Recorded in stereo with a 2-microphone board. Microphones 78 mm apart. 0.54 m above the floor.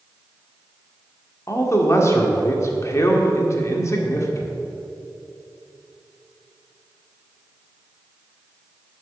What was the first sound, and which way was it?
A man speaking, 40° left (ahead or behind).